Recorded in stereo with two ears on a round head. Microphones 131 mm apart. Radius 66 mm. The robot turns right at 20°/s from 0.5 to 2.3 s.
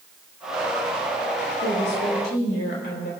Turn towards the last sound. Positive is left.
turn(degrees=80)